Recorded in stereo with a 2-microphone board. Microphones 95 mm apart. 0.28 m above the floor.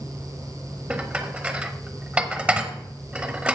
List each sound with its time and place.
0.9 s dishes clattering: 15° right (ahead or behind), 0.9 m